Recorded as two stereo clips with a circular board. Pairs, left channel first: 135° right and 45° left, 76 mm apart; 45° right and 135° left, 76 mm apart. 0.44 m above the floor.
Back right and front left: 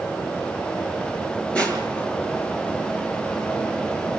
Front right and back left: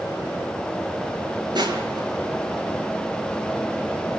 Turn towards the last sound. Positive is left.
turn(degrees=150)